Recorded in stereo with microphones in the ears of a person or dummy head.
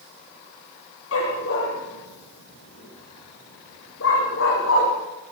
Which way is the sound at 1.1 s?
80° left.